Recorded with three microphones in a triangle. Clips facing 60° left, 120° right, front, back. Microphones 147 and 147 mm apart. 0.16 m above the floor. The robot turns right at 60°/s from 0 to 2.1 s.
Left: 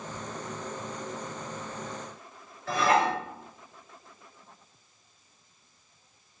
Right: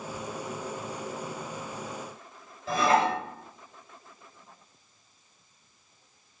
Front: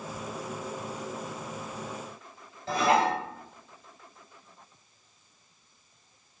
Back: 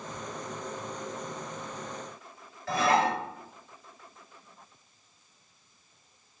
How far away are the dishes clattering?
About 1.7 m.